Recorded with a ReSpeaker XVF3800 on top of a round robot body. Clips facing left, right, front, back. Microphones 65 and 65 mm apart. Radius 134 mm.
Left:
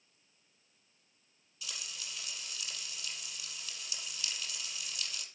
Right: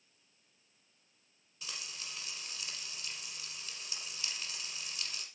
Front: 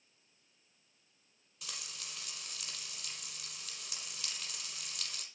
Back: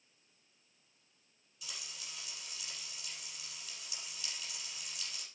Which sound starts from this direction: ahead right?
Frying, at 1.6 s.